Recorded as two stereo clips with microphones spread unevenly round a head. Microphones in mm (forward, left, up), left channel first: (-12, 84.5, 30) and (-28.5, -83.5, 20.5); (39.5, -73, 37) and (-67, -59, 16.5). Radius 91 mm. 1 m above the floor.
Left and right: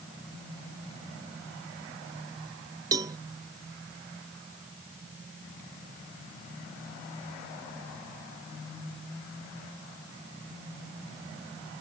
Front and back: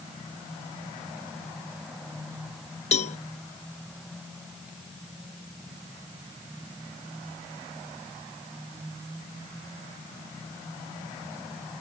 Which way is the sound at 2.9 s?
25° right.